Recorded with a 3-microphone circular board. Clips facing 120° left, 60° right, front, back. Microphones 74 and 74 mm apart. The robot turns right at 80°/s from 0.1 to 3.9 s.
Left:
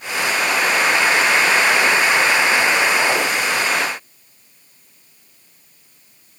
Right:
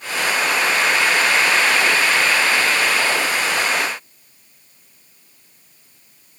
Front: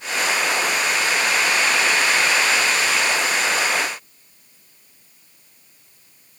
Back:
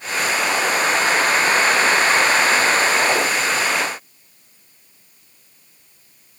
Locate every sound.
Only background noise.